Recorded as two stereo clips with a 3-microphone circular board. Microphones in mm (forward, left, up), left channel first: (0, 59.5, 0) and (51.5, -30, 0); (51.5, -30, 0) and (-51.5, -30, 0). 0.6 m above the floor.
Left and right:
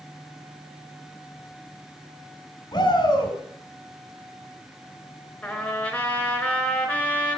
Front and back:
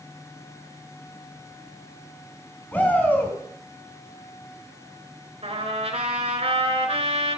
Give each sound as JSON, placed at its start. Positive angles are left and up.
{"t": 2.7, "sound": "a shout", "azimuth_deg": 75, "distance_m": 4.5}
{"t": 5.4, "sound": "a trumpet", "azimuth_deg": -160, "distance_m": 3.0}